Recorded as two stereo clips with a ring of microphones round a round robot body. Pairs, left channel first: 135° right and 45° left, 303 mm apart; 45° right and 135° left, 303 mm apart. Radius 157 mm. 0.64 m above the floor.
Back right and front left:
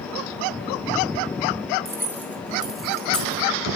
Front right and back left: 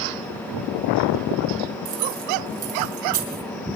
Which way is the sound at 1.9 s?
125° left.